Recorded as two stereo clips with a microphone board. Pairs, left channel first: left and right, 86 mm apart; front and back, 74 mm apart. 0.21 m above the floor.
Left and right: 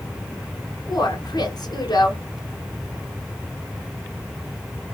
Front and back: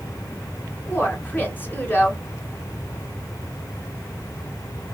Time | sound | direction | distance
0.9 | a woman speaking | 60° left | 2.5 m